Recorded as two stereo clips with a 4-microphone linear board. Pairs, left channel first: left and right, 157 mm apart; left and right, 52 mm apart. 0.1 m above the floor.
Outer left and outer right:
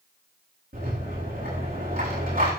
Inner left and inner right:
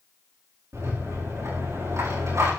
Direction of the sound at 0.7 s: 70° right (ahead or behind).